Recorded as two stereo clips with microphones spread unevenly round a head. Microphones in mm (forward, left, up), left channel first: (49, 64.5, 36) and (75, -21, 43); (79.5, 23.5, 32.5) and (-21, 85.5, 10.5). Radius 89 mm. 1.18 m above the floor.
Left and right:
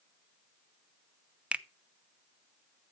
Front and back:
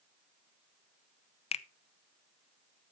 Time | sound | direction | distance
1.5 | a finger snap | 5° left | 0.7 m